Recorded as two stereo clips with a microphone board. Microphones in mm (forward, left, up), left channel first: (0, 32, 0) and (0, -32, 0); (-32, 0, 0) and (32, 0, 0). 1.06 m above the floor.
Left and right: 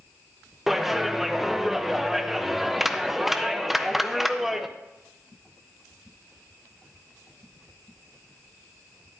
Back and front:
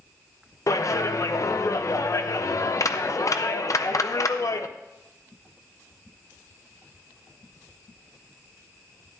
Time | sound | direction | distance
0.7 | a clap | 175° right | 0.6 m